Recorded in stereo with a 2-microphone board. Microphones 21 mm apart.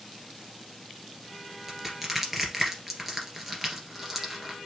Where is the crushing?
10° right (ahead or behind), 2 m.